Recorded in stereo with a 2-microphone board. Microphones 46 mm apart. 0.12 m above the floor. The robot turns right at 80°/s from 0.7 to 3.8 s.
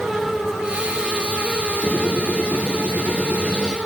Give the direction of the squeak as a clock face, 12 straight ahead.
11 o'clock.